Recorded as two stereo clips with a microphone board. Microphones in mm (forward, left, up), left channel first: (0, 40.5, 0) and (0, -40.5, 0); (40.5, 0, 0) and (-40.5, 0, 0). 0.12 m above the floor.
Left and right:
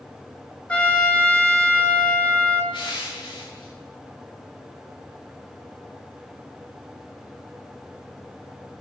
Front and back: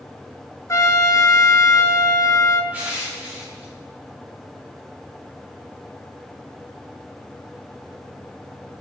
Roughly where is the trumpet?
Ahead left.